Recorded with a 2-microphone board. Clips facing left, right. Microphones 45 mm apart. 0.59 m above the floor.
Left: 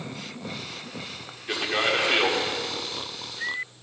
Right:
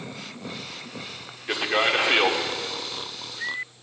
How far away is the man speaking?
About 1.2 m.